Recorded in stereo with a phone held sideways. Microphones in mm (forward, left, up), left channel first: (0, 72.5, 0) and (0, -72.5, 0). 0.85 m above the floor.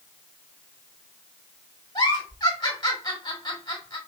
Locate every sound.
1.9 s a giggle: 30° left (ahead or behind), 1.6 m